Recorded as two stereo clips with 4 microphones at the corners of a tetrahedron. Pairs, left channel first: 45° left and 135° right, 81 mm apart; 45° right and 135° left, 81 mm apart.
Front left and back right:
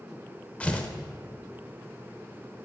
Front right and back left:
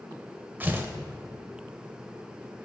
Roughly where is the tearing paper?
Left.